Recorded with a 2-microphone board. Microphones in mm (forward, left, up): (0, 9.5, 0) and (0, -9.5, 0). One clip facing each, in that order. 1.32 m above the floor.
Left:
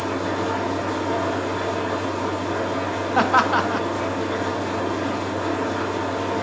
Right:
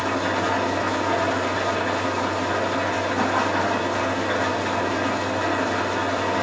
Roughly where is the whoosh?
I don't hear a whoosh.